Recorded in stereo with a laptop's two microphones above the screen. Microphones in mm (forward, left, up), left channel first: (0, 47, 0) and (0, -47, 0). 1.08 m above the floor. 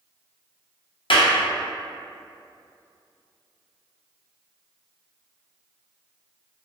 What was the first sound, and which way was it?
A clap, 70° left (ahead or behind).